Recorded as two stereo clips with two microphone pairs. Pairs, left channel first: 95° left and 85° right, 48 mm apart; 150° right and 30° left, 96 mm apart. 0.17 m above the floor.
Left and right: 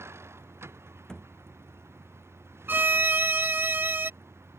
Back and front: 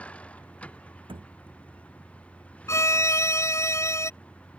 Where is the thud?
15° left.